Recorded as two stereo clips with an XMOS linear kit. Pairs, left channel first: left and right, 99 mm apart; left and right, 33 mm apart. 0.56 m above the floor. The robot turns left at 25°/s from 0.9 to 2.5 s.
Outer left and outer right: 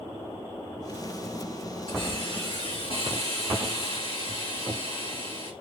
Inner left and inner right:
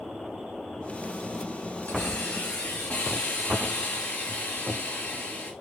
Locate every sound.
1.9 s a hiss: 55° left (ahead or behind), 2.5 m; by 5.5 s 70° left (ahead or behind), 2.5 m